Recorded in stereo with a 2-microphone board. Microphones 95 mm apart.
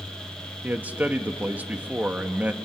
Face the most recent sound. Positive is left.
turn(degrees=-15)  # may be behind; listen again after turning